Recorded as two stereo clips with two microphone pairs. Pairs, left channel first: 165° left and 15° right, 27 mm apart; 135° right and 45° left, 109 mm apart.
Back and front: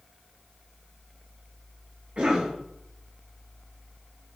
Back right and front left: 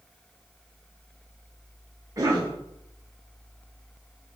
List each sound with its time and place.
2.2 s a cough: 5° left, 0.6 m